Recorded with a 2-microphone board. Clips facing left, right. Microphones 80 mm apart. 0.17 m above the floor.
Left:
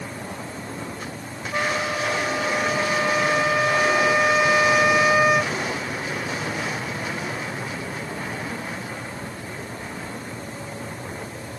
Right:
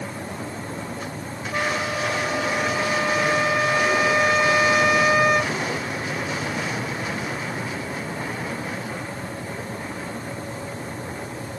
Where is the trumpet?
5° left (ahead or behind).